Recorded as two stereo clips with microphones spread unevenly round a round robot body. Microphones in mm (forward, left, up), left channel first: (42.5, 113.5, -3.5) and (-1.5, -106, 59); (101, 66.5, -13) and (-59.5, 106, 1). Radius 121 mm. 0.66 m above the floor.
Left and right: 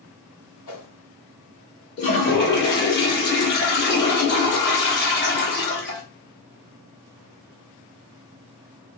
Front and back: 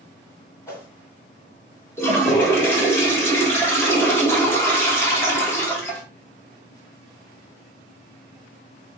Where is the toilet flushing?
60° left, 1.3 m.